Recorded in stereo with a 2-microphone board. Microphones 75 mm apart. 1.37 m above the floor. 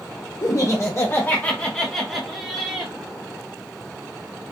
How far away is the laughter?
About 1.2 m.